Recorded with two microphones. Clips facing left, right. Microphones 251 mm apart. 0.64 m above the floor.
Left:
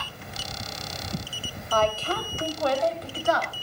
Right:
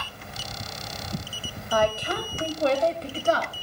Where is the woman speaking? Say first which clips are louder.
Right 1 dB; 10° right (ahead or behind), 2.5 m; by 3.6 s 40° right (ahead or behind), 3 m.